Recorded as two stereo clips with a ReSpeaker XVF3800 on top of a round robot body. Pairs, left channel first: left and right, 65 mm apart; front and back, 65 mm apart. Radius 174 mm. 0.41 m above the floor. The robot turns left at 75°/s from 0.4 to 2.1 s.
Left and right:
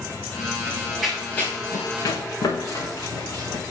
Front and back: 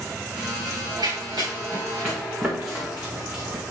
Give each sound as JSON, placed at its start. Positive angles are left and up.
{"t": 0.7, "sound": "running footsteps", "azimuth_deg": -150, "distance_m": 4.0}